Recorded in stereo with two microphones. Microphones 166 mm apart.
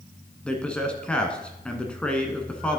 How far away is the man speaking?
About 1.1 m.